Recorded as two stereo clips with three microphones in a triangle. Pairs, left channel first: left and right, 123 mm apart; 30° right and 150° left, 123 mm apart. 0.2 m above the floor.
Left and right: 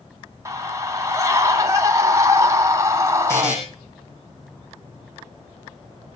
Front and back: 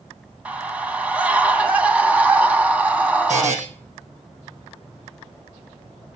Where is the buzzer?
160° left, 6 m.